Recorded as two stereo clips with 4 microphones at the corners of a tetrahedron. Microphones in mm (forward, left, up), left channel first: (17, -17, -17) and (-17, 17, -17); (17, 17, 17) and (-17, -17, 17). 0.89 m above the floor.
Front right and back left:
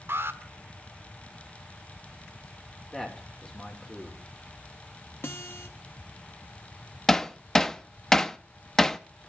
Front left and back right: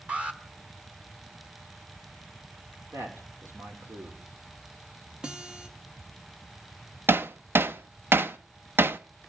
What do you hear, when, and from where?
0.1 s an alarm: 160° left, 1.3 m
2.9 s a man speaking: 120° right, 2.5 m
5.2 s a guitar: 65° right, 1.1 m
7.1 s hammering: 120° right, 0.5 m